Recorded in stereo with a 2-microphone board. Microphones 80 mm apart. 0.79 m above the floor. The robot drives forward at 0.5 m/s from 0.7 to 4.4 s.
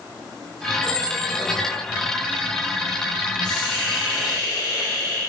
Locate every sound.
0.8 s a squeak: 20° right (ahead or behind), 1.6 m; by 1.7 s 25° right (ahead or behind), 1.3 m
3.4 s a hiss: 65° left (ahead or behind), 1.5 m; by 5.2 s 50° left (ahead or behind), 1.8 m